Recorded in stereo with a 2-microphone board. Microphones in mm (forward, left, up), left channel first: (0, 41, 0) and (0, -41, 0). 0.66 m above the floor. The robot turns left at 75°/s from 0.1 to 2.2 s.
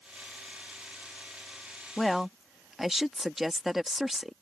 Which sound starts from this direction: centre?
A woman speaking, at 2.0 s.